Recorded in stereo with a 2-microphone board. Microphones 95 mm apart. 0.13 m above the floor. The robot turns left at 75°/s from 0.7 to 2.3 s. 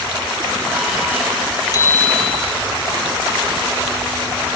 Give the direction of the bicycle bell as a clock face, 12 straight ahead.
11 o'clock.